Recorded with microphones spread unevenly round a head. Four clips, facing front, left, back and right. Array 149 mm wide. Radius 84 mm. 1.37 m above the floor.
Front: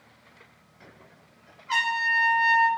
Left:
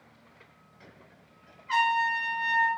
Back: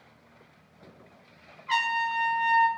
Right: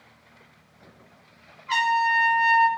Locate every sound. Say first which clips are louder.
1.7 s a trumpet: right 4 dB, front 1 dB; 160° right, 1.5 m